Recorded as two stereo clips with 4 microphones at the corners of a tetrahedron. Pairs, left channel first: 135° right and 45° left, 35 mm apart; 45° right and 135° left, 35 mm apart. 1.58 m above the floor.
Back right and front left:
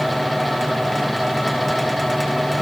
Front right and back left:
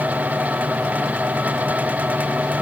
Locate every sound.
Only background noise.